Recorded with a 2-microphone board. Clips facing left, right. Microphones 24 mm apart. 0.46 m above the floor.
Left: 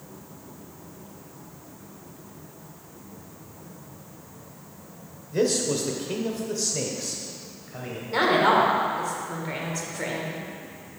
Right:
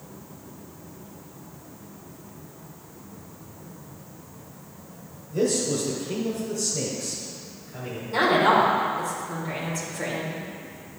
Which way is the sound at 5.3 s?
55° left (ahead or behind).